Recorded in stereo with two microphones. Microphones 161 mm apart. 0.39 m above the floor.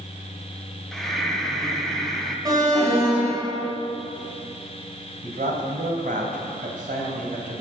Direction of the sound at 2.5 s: 25° right (ahead or behind).